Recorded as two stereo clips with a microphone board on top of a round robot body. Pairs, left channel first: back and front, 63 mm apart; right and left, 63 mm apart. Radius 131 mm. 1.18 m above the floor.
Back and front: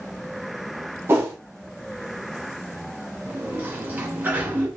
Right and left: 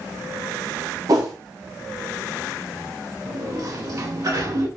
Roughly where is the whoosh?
Ahead left.